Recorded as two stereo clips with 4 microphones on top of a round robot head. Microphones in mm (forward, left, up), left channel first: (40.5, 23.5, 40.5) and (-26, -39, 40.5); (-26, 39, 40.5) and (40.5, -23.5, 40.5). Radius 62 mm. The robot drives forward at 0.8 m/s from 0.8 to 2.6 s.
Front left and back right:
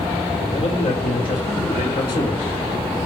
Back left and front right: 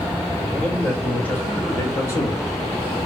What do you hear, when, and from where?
0.4 s a man speaking: 60° left, 3 m; by 2.5 s 85° left, 2.5 m